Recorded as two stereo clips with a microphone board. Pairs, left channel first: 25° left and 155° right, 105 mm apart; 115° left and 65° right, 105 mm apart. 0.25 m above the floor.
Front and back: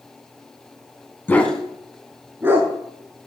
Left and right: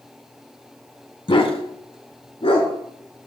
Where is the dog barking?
90° left, 0.9 m; by 2.7 s 135° left, 1.6 m.